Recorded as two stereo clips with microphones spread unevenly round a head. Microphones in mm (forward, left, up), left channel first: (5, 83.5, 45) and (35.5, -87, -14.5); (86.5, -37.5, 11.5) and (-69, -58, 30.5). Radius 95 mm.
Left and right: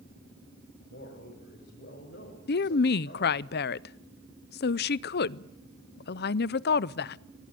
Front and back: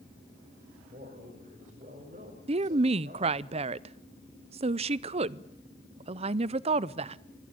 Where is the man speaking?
135° left, 6.5 m.